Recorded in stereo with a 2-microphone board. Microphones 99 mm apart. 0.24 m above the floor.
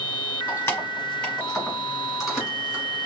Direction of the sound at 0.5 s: 30° left (ahead or behind).